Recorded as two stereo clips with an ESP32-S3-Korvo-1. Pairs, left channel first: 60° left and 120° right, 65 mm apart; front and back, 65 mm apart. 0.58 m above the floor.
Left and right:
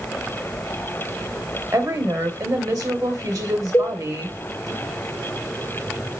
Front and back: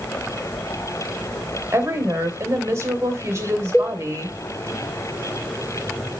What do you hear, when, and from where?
1.7 s a woman speaking: 130° right, 2.5 m
3.7 s a cowbell: 30° left, 1.9 m